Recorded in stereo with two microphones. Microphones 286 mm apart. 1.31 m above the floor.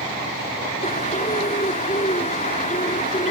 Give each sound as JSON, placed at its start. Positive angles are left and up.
{"t": 0.8, "sound": "a bird", "side_deg": 25}